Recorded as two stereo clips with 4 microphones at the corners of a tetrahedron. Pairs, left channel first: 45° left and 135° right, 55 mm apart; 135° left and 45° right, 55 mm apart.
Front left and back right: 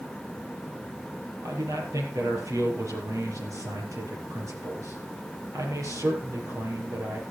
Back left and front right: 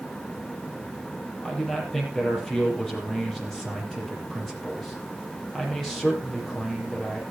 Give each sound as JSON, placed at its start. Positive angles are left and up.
{"t": 1.4, "sound": "a man speaking", "azimuth_deg": -140, "distance_m": 5.5}